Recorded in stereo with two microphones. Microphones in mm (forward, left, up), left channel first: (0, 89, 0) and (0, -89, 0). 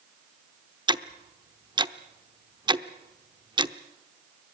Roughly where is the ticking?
Right.